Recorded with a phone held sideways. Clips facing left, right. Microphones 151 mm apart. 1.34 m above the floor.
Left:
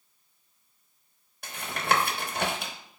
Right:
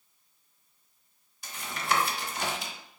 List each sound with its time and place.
1.4 s tapping: 60° left (ahead or behind), 0.9 m